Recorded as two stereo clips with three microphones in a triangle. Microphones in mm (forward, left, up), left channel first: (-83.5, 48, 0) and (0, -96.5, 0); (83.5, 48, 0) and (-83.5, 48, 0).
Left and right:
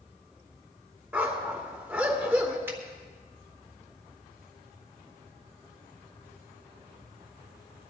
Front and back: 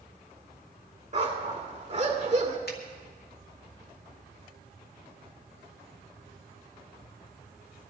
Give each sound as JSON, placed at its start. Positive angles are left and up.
{"t": 1.1, "sound": "a dog barking", "azimuth_deg": -140, "distance_m": 2.0}
{"t": 2.7, "sound": "a finger snap", "azimuth_deg": 15, "distance_m": 2.0}